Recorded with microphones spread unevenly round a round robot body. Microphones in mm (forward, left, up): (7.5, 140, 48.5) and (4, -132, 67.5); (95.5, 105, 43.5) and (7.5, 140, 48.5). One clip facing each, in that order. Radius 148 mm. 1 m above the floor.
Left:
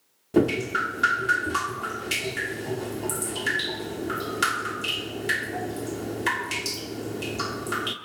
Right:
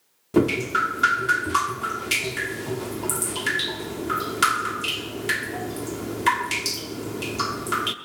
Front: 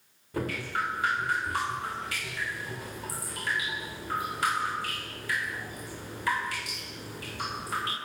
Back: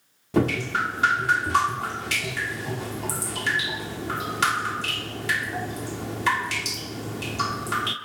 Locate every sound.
0.3 s dripping: 170° right, 0.9 m